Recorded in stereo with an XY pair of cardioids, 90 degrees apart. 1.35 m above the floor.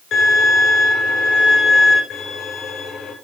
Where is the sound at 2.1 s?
65° left, 6.5 m.